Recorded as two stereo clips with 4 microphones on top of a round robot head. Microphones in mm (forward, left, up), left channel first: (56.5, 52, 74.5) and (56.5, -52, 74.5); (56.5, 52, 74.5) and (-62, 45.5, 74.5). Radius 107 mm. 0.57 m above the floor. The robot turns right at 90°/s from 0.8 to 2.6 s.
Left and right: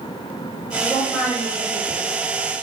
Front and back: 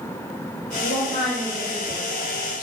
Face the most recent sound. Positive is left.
turn(degrees=140)